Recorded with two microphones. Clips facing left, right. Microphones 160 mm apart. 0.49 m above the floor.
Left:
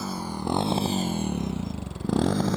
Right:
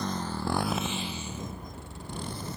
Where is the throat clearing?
No throat clearing in this recording.